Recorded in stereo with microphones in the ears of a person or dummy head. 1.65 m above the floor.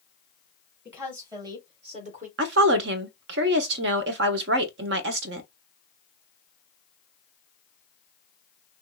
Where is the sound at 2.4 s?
60° right (ahead or behind), 0.8 m.